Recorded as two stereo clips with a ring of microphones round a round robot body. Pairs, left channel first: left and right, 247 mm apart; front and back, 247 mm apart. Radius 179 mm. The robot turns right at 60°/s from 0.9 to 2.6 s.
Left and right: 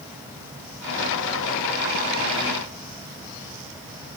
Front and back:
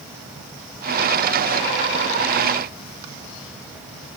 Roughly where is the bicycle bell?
No bicycle bell in this recording.